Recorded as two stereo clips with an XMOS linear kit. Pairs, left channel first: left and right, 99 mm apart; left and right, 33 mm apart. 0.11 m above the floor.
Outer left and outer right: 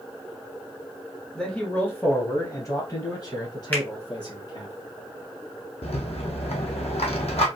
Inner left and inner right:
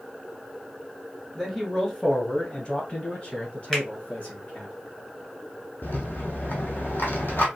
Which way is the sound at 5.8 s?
70° left (ahead or behind).